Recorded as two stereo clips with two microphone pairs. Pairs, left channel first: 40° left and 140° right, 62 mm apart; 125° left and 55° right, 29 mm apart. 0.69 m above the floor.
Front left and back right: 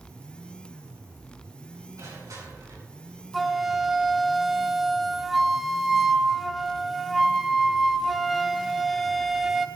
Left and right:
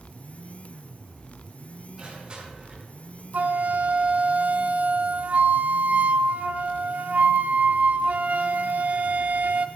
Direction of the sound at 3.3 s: 55° right.